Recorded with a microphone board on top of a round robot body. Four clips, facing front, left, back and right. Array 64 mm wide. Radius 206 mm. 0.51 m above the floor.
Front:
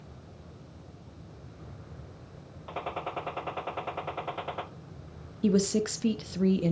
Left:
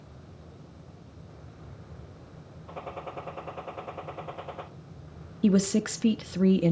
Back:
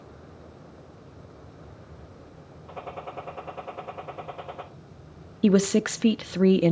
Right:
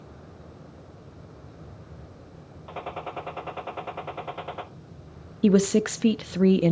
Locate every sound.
2.7 s a gunshot: 40° right, 2 m
5.4 s a woman speaking: 155° right, 0.9 m